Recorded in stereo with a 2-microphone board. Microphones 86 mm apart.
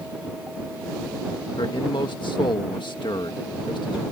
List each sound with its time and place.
1.6 s a man speaking: 70° left (ahead or behind)